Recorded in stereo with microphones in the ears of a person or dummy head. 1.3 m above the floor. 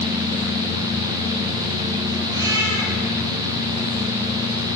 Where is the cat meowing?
20° right (ahead or behind), 8 m.